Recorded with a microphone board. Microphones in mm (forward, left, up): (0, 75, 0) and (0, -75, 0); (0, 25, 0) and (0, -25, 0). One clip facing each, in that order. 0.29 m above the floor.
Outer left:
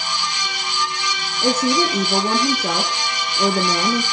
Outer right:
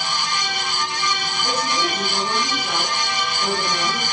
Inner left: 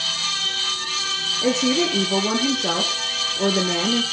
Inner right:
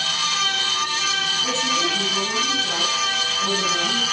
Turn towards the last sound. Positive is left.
turn(degrees=80)